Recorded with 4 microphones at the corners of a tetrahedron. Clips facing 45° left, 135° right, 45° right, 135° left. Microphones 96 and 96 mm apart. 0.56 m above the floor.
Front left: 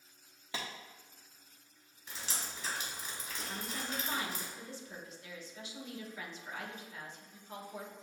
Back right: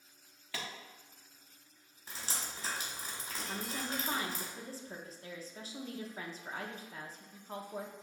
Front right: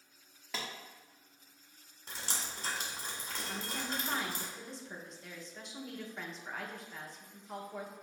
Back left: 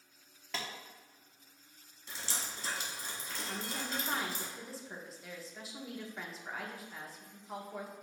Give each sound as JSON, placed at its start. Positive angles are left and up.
{"t": 0.5, "sound": "a clap", "azimuth_deg": 40, "distance_m": 1.0}
{"t": 2.1, "sound": "dripping", "azimuth_deg": -85, "distance_m": 1.5}
{"t": 3.5, "sound": "a woman speaking", "azimuth_deg": -140, "distance_m": 0.7}